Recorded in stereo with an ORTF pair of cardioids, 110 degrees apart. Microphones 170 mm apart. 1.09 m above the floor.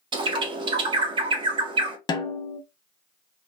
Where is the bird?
30° right, 1.0 m.